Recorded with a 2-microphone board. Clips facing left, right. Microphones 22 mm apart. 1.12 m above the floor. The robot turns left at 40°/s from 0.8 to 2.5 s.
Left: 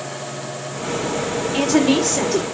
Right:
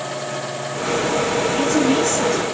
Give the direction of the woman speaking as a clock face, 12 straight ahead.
8 o'clock.